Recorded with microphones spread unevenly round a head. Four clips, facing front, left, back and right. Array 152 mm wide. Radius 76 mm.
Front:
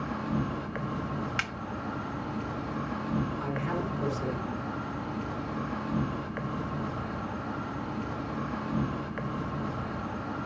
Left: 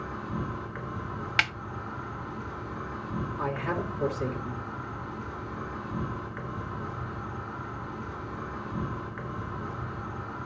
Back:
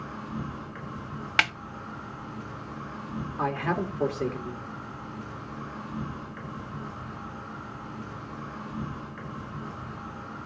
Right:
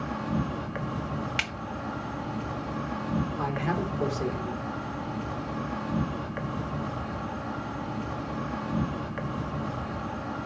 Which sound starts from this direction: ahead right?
An insect, at 0.0 s.